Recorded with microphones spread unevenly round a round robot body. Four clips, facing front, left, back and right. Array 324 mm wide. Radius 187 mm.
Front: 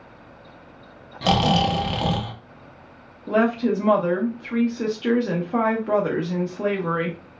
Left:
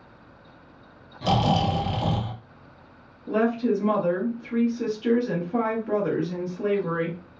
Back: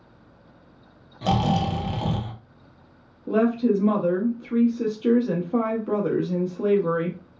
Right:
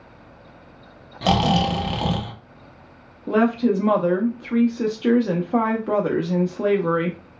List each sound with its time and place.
1.2 s snoring: 55° right, 0.7 m
3.3 s a woman speaking: 85° right, 0.6 m